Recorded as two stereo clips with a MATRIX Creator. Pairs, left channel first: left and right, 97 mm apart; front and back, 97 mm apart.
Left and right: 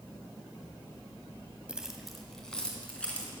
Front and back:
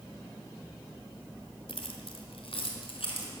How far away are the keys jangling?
About 1.5 m.